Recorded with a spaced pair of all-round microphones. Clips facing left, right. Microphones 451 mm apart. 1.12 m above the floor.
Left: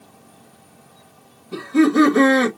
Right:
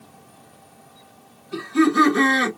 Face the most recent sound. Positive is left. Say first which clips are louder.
# left 3 dB
turn(degrees=70)  # may be behind; listen again after turning